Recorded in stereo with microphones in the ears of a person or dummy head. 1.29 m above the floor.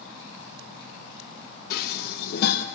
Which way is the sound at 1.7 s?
55° left (ahead or behind).